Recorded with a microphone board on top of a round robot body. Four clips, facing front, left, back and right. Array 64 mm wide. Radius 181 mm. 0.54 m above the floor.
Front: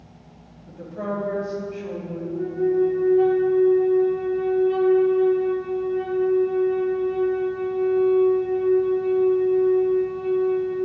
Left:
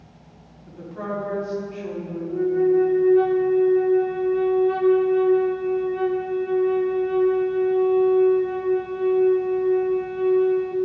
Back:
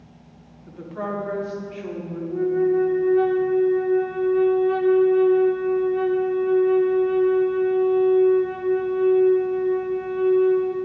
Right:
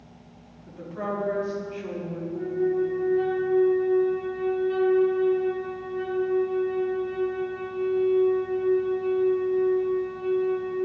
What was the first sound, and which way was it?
A woman speaking, 175° right.